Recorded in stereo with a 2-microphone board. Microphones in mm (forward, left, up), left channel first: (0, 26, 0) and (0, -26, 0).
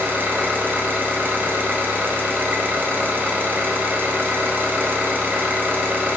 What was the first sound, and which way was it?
An engine running, 45° right (ahead or behind).